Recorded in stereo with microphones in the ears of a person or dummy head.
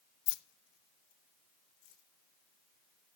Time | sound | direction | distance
0.3 | keys jangling | 60° left (ahead or behind) | 0.6 m